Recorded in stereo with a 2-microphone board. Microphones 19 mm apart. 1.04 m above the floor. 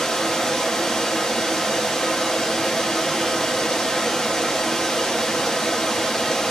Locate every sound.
0.0 s running water: 30° left (ahead or behind), 1.4 m